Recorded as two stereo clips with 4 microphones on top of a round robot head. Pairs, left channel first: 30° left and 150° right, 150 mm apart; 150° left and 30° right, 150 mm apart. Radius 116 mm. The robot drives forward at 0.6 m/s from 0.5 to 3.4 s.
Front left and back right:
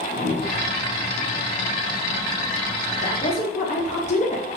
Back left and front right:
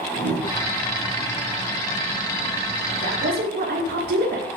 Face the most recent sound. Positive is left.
turn(degrees=-15)